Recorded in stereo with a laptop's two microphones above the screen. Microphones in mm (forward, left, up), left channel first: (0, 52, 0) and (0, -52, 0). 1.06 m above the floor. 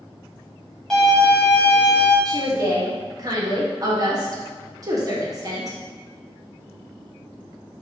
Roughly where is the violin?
Centre.